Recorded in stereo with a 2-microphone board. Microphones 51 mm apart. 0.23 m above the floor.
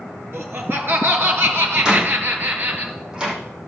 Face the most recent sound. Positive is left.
turn(degrees=-15)  # may be behind; listen again after turning